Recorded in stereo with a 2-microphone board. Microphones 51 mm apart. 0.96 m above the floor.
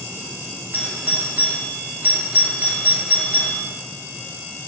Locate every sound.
0.7 s a doorbell: 35° right (ahead or behind), 1.2 m